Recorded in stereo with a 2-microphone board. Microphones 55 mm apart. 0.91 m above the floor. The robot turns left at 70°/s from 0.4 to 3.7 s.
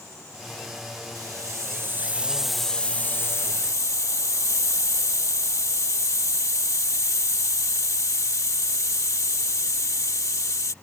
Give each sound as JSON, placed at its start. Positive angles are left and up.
{"t": 1.1, "sound": "a hiss", "azimuth_deg": -80}